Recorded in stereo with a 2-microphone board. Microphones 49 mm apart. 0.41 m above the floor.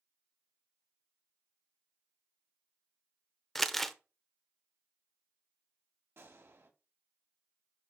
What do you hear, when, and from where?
3.5 s crumpling: 5° left (ahead or behind), 0.6 m
6.2 s a gunshot: 60° right (ahead or behind), 1.9 m